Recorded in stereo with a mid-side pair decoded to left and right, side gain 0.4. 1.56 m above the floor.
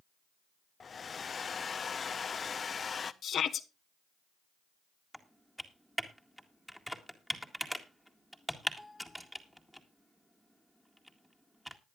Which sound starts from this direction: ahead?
Typing on a keyboard, at 5.1 s.